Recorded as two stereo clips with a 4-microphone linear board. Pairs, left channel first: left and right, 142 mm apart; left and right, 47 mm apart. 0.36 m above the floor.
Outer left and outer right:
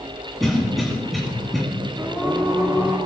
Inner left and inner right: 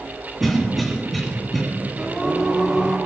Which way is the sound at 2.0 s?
10° right (ahead or behind).